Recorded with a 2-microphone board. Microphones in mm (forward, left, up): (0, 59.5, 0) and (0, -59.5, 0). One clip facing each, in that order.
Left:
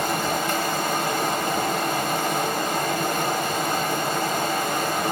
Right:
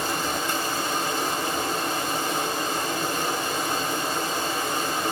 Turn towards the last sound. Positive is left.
turn(degrees=55)  # may be behind; listen again after turning